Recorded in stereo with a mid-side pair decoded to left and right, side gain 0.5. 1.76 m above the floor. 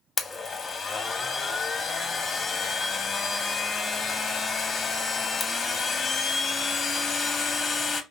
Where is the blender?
35° left, 0.9 m.